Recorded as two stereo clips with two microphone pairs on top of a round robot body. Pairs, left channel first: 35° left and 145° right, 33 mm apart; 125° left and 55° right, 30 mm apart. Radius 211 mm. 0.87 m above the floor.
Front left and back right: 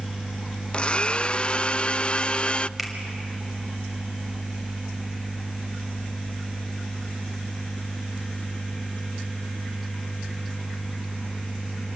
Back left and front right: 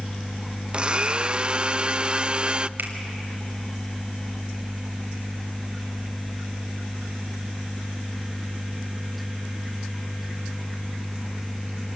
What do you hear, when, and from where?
0.7 s a blender: 10° right, 0.5 m
2.8 s a finger snap: 60° right, 2.5 m